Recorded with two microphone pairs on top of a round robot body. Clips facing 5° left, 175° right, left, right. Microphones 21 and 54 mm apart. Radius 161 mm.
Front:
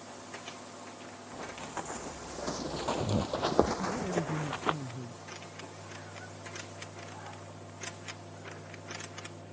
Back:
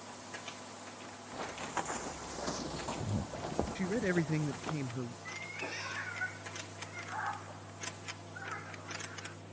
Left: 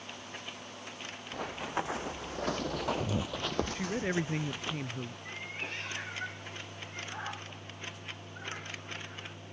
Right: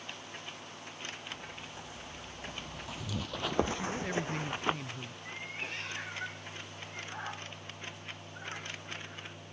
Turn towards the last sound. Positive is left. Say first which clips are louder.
# back 4 dB, right 3 dB
turn(degrees=180)